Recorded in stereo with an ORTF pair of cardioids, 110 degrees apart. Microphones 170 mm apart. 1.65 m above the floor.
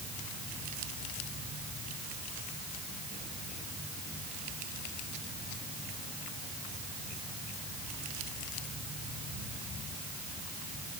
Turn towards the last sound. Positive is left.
No sound to turn to.